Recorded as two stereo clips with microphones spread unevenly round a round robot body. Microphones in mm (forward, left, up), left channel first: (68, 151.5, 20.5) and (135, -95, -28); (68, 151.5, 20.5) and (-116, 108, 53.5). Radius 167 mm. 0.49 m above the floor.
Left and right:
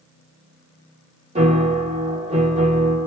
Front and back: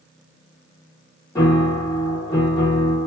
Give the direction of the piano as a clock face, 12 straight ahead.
1 o'clock.